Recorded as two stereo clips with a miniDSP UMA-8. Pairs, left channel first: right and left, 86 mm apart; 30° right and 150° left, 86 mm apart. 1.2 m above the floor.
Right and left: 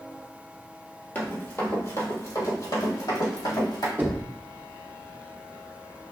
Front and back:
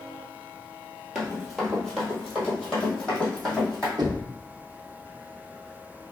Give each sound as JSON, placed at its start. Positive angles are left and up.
{"t": 1.1, "sound": "running footsteps", "azimuth_deg": -130, "distance_m": 1.3}
{"t": 4.0, "sound": "knocking", "azimuth_deg": 150, "distance_m": 0.7}